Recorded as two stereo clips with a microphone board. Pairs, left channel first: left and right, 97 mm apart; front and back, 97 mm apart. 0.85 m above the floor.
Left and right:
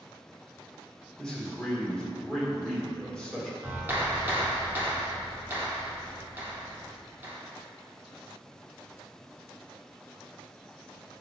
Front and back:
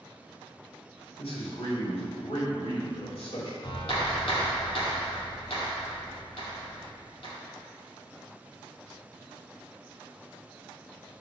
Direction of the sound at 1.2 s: 5° left.